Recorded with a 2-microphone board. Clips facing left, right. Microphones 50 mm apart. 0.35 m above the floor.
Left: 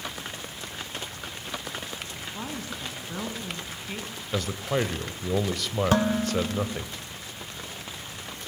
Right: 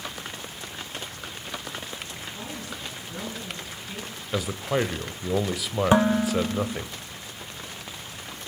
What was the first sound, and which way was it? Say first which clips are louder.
A woman speaking: left 3 dB; 30° left (ahead or behind).